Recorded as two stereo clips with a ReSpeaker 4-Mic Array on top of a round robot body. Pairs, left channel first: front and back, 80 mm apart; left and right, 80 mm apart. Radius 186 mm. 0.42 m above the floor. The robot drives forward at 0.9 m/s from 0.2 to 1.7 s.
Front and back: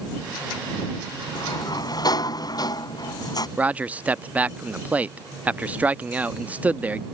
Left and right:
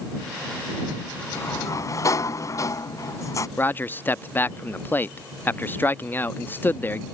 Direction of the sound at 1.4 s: 35° left.